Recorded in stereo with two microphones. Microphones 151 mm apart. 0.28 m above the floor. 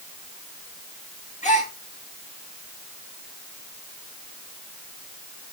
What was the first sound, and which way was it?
A gasp, 55° left (ahead or behind).